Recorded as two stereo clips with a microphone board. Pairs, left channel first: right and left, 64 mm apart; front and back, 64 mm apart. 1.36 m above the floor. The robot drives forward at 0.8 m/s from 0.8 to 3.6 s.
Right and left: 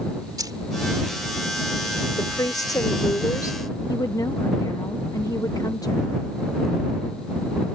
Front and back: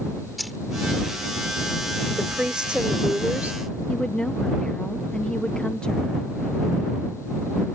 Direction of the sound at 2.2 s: 100° right.